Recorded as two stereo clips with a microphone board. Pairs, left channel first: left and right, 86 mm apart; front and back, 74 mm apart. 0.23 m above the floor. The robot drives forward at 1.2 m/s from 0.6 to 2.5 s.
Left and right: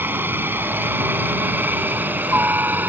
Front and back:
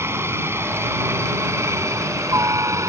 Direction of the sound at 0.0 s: 145° right.